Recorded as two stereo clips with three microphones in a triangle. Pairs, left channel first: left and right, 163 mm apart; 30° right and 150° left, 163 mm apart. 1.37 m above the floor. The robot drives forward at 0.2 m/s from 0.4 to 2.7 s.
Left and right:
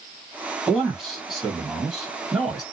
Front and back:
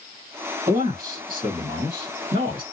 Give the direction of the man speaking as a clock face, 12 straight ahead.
6 o'clock.